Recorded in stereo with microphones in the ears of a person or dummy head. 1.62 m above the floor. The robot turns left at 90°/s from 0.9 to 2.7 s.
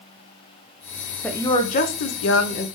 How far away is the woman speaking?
About 0.7 m.